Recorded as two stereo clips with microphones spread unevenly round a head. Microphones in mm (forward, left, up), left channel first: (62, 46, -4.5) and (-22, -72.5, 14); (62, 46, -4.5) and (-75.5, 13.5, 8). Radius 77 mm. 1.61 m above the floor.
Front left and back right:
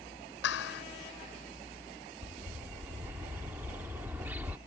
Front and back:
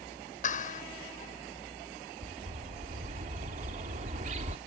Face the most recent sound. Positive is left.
turn(degrees=155)